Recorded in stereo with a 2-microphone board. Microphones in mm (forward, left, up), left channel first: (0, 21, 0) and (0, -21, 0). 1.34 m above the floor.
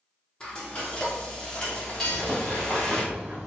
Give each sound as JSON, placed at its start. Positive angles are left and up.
{"t": 0.4, "sound": "frying", "side_deg": 25, "distance_m": 1.1}
{"t": 2.0, "sound": "a bird", "side_deg": -10, "distance_m": 1.3}